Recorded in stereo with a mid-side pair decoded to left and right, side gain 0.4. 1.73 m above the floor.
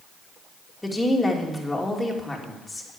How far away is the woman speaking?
About 3 m.